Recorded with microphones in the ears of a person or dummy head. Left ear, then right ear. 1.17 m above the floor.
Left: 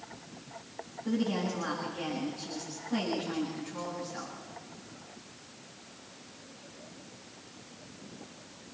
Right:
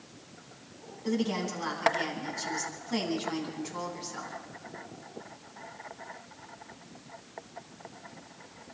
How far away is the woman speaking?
About 9.5 m.